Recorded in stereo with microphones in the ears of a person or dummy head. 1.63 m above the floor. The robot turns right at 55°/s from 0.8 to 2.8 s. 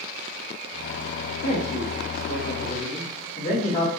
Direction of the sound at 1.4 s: 70° left.